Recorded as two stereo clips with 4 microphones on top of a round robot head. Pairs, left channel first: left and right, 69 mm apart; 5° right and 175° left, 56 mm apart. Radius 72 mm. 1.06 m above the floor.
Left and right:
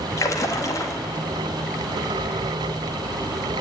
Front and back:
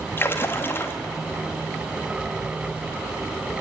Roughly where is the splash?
Ahead left.